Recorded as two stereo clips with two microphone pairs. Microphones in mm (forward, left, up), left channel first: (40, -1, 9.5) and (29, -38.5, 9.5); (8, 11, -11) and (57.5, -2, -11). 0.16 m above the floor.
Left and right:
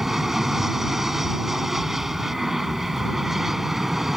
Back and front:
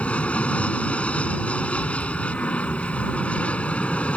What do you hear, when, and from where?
0.0 s an aircraft: straight behind